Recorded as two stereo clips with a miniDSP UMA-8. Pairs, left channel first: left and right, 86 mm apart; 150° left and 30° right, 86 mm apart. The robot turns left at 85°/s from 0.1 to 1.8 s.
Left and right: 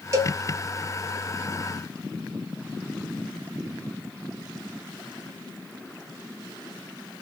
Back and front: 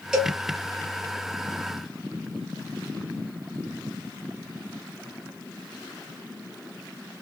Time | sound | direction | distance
0.1 | a cowbell | 105° right | 0.7 m